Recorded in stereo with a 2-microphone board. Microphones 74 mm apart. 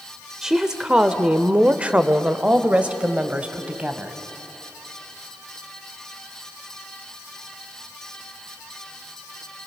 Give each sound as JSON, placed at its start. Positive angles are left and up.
{"t": 0.4, "sound": "a woman speaking", "side_deg": -5, "distance_m": 1.0}